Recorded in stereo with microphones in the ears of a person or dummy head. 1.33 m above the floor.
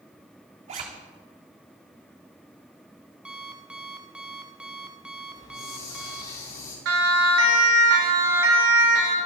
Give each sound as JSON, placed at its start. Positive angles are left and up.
{"t": 0.7, "sound": "a zipper", "side_deg": -35, "distance_m": 1.8}
{"t": 3.2, "sound": "an alarm clock", "side_deg": -5, "distance_m": 0.9}
{"t": 5.3, "sound": "a hiss", "side_deg": 30, "distance_m": 5.5}
{"t": 6.8, "sound": "a siren", "side_deg": -90, "distance_m": 2.5}